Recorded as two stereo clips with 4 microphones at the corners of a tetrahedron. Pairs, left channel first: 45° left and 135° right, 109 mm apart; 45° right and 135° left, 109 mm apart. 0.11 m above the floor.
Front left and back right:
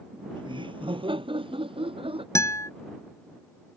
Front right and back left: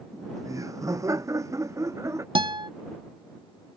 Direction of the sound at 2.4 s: 105° left.